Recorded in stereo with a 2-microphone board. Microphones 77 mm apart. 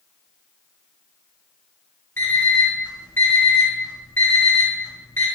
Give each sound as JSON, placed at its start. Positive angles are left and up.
{"t": 2.2, "sound": "an alarm clock", "side_deg": 30, "distance_m": 1.3}